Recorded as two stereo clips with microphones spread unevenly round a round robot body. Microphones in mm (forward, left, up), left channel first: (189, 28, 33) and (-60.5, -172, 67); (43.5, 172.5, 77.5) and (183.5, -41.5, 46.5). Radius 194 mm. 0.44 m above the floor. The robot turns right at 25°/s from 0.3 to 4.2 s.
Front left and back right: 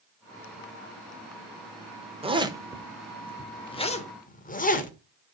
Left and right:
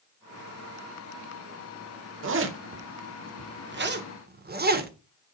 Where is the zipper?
65° right, 1.2 m; by 4.9 s 20° right, 1.2 m.